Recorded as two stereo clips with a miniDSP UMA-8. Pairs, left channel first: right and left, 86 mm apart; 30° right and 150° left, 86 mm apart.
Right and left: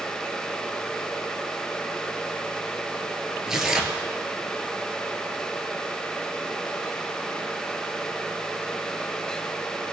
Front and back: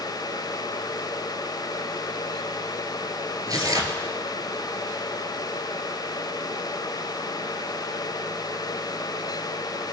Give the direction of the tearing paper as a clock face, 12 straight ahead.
6 o'clock.